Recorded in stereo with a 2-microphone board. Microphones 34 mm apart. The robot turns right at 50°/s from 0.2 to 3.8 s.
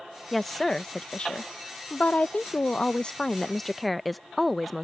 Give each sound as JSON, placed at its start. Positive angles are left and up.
{"t": 0.3, "sound": "a woman speaking", "azimuth_deg": 0}